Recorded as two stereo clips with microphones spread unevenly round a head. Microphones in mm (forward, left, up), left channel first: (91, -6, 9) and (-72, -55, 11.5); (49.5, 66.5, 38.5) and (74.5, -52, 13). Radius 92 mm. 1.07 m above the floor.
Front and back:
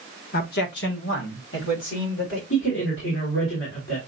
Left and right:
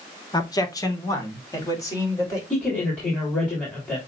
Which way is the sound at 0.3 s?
40° left.